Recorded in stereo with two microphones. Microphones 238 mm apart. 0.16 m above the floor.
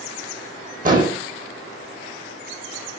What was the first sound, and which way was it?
An explosion, 35° right (ahead or behind).